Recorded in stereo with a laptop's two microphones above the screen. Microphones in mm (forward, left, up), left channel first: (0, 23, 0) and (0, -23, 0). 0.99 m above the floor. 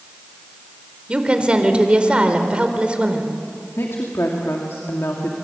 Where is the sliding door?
No sliding door in this recording.